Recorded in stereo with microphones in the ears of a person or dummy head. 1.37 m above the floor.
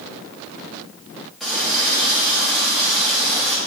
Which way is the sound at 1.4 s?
5° left (ahead or behind).